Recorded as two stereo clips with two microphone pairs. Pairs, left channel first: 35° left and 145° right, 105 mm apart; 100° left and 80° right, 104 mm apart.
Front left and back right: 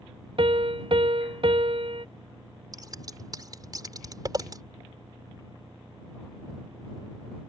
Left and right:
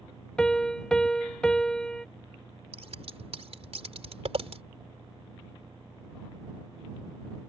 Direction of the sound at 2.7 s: 90° right.